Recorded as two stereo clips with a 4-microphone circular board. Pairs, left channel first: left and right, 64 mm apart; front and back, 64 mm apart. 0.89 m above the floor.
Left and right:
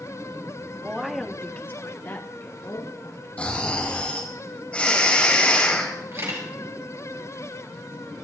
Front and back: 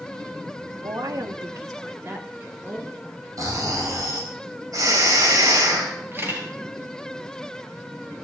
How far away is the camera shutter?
About 5 m.